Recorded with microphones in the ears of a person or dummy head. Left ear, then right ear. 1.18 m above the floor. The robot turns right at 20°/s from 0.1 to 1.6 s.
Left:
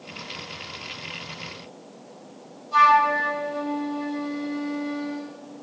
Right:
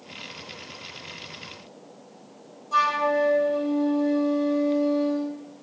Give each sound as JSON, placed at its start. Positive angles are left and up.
{"t": 2.7, "sound": "a flute", "side_deg": -50, "distance_m": 6.5}